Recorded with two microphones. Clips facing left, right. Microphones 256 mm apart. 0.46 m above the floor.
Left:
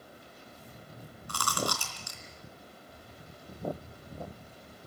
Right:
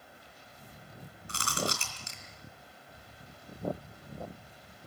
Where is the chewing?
25° right (ahead or behind), 3 m.